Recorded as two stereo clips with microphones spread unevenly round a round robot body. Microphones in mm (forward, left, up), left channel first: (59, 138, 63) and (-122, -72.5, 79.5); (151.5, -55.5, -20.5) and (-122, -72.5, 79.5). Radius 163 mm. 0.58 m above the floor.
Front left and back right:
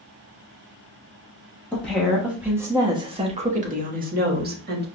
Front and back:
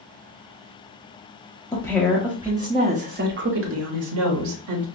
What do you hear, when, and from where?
1.7 s a woman speaking: 25° right, 1.3 m; by 4.8 s 175° right, 1.6 m